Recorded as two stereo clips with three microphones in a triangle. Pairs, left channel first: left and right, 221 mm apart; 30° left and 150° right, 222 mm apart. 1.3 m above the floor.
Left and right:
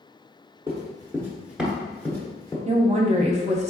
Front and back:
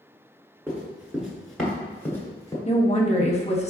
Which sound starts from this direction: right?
Running footsteps, at 0.7 s.